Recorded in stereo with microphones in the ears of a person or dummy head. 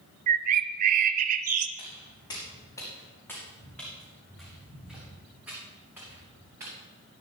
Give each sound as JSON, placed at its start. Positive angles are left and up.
{"t": 0.3, "sound": "a bird", "side_deg": -50, "distance_m": 0.5}
{"t": 1.8, "sound": "footsteps", "side_deg": 30, "distance_m": 5.5}